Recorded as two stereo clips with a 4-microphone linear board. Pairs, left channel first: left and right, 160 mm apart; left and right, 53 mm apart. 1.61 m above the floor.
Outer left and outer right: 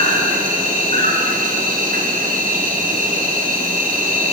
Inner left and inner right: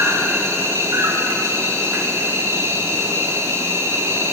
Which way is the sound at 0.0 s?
60° right (ahead or behind).